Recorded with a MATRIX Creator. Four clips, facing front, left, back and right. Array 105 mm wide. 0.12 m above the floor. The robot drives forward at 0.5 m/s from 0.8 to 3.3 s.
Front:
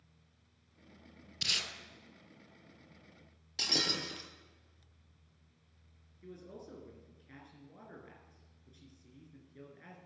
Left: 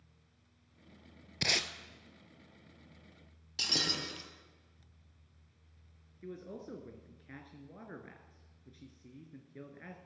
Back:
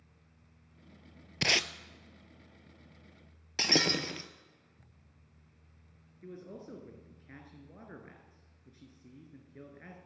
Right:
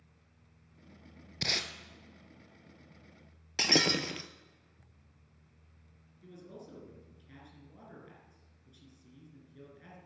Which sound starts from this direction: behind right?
Breaking glass, at 3.6 s.